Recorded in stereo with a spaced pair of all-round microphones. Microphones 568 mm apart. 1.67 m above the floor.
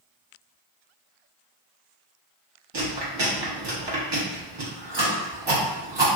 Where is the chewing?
45° right (ahead or behind), 1.0 m.